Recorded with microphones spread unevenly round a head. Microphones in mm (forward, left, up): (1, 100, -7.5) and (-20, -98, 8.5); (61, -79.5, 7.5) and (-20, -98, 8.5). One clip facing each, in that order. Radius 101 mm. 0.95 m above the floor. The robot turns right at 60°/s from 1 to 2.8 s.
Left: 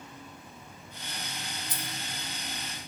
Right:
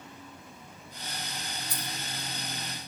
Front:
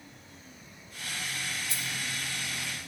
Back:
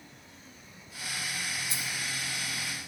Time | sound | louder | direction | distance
1.7 | keys jangling | right 1 dB, even | 15° left | 5.5 m